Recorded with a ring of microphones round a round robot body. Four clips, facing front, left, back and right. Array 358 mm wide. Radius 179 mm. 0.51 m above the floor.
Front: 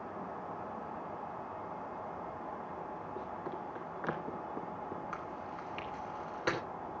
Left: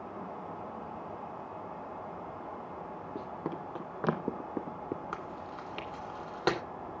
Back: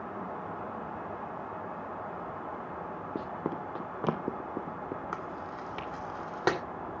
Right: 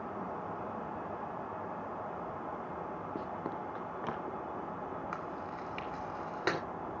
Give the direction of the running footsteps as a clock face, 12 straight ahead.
6 o'clock.